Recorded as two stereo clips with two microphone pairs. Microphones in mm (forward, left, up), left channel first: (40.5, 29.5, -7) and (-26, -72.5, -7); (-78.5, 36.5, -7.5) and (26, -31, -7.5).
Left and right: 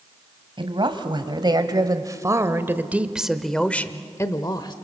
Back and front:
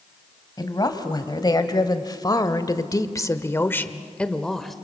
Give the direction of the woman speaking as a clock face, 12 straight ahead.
5 o'clock.